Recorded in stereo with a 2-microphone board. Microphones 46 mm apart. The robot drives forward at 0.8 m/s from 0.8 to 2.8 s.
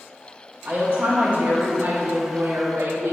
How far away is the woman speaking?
About 1.9 m.